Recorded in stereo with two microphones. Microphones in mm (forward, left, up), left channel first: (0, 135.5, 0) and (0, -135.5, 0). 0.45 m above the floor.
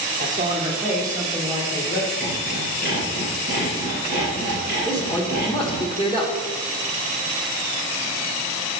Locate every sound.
0.2 s a man speaking: 30° right (ahead or behind), 1.2 m; by 2.1 s 35° left (ahead or behind), 1.3 m
2.2 s sawing: 40° left (ahead or behind), 2.5 m
4.8 s a man speaking: 20° left (ahead or behind), 1.0 m